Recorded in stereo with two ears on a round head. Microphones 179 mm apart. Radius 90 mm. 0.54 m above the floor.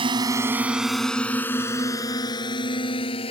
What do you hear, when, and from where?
0.0 s a drone: 25° right (ahead or behind); by 3.3 s 30° left (ahead or behind)